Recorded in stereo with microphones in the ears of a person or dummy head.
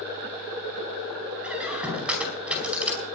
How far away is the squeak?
About 5 m.